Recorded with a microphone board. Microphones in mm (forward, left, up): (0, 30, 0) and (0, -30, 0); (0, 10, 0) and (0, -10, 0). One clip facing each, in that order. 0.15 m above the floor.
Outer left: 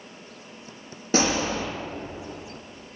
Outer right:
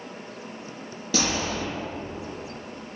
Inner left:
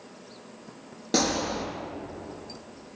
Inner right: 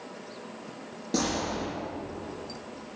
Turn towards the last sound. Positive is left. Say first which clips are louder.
# outer left 3 dB, inner left 3 dB
turn(degrees=30)  # may be behind; listen again after turning